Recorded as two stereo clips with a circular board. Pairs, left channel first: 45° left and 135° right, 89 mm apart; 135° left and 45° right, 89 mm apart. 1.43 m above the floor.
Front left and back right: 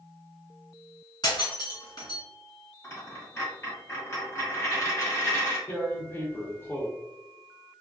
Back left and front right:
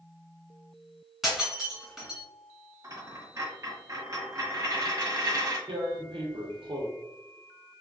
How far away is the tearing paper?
About 0.7 m.